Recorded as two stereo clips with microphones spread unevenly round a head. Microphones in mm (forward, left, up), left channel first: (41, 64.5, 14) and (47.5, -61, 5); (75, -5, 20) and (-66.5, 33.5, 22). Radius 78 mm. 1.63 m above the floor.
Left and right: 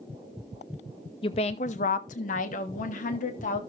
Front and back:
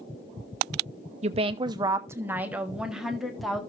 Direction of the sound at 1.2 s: 135° left.